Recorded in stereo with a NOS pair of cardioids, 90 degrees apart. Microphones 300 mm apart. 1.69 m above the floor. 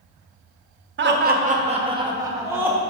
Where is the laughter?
40° right, 0.9 m; by 2.8 s 5° right, 1.7 m.